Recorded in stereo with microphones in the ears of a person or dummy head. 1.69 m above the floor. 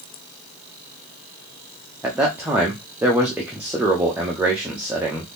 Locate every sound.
2.0 s a man speaking: 10° right (ahead or behind), 0.5 m